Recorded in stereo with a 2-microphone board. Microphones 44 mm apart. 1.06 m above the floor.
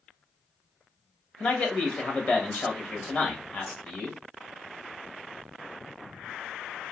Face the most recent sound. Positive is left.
turn(degrees=40)  # may be behind; listen again after turning